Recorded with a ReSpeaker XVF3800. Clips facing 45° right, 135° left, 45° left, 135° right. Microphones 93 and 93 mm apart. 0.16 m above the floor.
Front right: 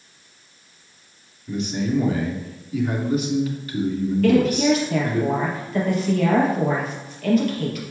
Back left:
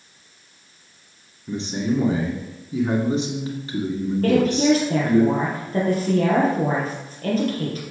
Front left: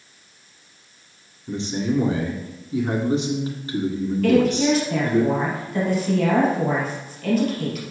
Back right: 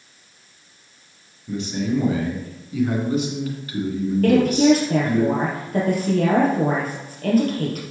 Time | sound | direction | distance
1.5 | a man speaking | 90° left | 2 m
4.2 | a woman speaking | 175° right | 3 m